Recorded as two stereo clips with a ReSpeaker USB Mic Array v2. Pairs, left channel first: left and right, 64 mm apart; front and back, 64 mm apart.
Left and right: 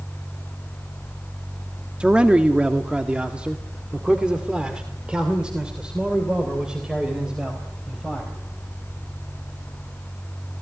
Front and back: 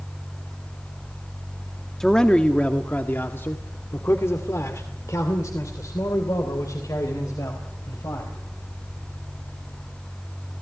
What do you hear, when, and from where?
2.0 s a man speaking: 70° right, 1.3 m; by 8.3 s 15° right, 4 m